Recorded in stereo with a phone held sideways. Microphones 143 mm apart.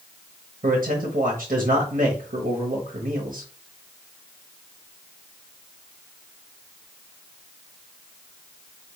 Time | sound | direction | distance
0.6 | a man speaking | 75° right (ahead or behind) | 0.9 m